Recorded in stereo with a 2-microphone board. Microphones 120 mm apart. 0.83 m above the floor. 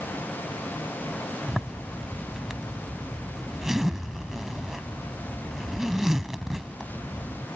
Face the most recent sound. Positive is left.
turn(degrees=-5)  # may be behind; listen again after turning